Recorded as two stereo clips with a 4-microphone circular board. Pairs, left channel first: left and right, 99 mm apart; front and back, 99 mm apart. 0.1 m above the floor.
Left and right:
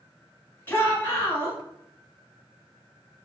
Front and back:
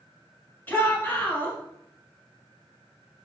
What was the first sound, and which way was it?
A shout, 50° left.